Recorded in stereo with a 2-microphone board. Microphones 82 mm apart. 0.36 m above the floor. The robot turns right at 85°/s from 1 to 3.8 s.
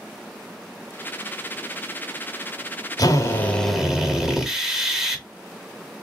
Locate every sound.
3.0 s a drill: 115° left, 1.0 m; by 5.2 s 175° right, 1.0 m